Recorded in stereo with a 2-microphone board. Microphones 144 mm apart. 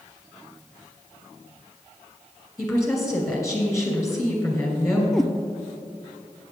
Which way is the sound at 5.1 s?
5° left (ahead or behind).